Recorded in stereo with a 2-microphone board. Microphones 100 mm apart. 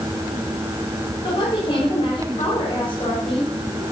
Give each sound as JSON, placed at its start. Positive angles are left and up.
{"t": 1.2, "sound": "a woman speaking", "side_deg": 70, "distance_m": 6.5}